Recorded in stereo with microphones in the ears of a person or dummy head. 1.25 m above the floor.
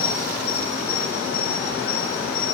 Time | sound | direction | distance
0.0 | an insect | 70° left (ahead or behind) | 4 m